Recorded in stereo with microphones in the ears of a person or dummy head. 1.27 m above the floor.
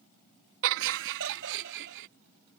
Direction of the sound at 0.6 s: 70° right (ahead or behind).